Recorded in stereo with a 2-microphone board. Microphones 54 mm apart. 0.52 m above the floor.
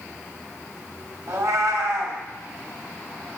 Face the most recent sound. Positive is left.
turn(degrees=-65)  # may be behind; listen again after turning